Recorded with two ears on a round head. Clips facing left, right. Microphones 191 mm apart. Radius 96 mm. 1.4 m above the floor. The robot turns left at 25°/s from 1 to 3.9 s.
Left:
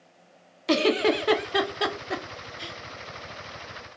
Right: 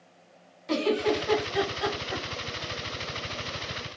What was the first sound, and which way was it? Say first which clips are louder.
A giggle: left 3 dB; 80° left.